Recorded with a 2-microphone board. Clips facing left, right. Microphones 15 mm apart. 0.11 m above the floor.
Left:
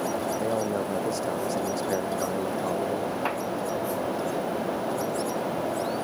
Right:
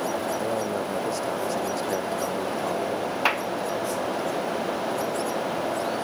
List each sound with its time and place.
0.4 s a man speaking: centre (ahead or behind)
3.2 s a clap: 75° right (ahead or behind)